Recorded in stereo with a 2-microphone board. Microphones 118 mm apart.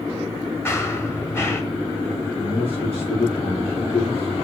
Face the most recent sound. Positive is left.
turn(degrees=45)  # may be behind; listen again after turning